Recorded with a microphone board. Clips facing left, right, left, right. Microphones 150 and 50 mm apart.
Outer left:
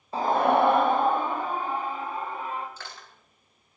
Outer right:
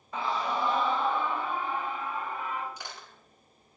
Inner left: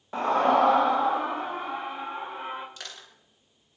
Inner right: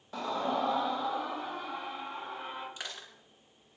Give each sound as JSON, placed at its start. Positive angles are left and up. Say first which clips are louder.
{"t": 0.1, "sound": "a scream", "louder": "outer left 9 dB, inner left 10 dB", "side_deg": 35, "distance_m": 0.5}
{"t": 2.8, "sound": "crushing", "louder": "even, inner right 1 dB", "side_deg": -15, "distance_m": 7.0}